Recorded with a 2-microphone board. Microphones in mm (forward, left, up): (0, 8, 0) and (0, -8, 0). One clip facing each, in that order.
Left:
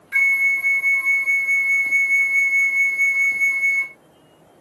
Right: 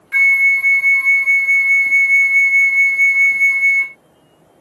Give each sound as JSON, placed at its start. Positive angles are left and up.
{"t": 0.1, "sound": "a flute", "side_deg": -60}